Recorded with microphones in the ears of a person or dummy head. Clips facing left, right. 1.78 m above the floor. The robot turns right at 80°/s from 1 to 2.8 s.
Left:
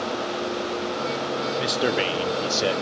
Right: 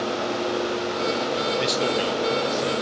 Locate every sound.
1.6 s a man speaking: 5° right, 1.2 m; by 2.8 s 95° left, 1.2 m